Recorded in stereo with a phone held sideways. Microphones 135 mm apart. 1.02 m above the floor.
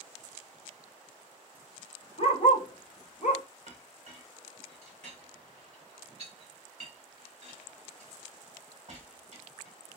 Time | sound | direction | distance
2.2 | a dog barking | 50° left (ahead or behind) | 1.4 m
3.7 | a clink | 50° right (ahead or behind) | 2 m